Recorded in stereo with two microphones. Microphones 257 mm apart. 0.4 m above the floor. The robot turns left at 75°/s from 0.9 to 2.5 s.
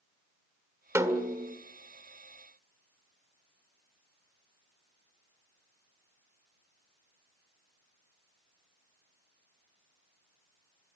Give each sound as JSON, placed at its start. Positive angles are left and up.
{"t": 0.9, "sound": "a snare drum", "azimuth_deg": -20, "distance_m": 1.5}